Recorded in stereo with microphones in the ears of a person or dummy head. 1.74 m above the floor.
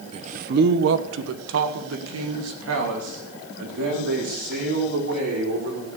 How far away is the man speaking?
About 1.0 m.